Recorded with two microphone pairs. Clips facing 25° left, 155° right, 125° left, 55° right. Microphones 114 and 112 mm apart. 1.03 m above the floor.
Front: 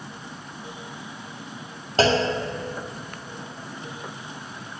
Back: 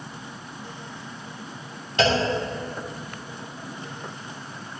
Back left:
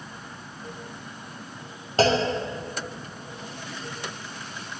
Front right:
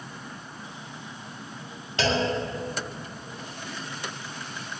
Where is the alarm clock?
I don't hear an alarm clock.